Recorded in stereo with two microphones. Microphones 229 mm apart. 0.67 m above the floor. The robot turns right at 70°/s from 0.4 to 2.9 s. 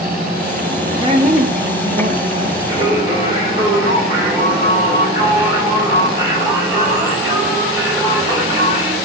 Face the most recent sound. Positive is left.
turn(degrees=-20)  # may be behind; listen again after turning